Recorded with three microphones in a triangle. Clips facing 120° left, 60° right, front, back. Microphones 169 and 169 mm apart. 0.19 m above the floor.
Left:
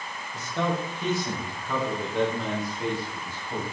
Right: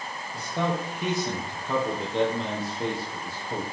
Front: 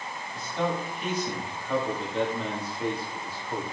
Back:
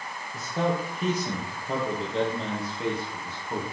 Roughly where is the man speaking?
Behind right.